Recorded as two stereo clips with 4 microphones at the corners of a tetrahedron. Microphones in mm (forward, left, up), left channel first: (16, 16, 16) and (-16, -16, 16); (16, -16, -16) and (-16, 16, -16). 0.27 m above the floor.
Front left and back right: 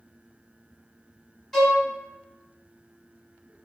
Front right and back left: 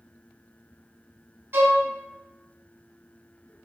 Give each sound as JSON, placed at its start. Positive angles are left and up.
{"t": 1.5, "sound": "a violin", "azimuth_deg": 130, "distance_m": 0.9}